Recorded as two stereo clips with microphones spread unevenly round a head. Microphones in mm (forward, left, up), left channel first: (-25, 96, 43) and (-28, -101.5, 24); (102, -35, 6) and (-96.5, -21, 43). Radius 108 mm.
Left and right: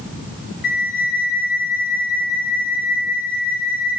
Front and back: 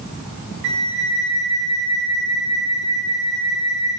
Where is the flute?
135° left, 1.0 m.